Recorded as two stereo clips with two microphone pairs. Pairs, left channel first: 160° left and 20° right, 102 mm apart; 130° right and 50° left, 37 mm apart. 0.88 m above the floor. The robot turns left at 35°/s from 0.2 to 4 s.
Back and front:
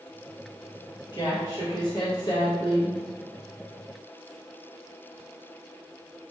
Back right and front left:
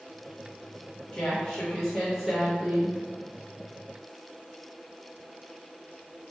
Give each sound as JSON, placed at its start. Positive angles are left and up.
{"t": 1.1, "sound": "a woman speaking", "azimuth_deg": 180, "distance_m": 0.9}